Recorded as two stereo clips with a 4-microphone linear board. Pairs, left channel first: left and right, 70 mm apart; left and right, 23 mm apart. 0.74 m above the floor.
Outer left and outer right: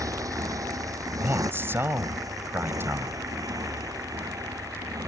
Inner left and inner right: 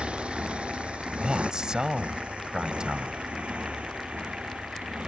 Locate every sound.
0.0 s a motorcycle: 60° right (ahead or behind); by 5.1 s 65° right (ahead or behind)
1.2 s a man speaking: 35° right (ahead or behind)